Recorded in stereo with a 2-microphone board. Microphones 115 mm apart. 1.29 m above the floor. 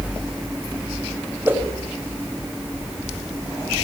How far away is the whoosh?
About 5 m.